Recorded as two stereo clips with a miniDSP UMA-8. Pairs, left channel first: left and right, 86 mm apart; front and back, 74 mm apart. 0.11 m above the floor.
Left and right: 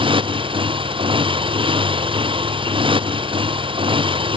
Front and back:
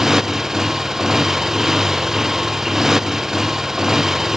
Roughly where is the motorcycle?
Right.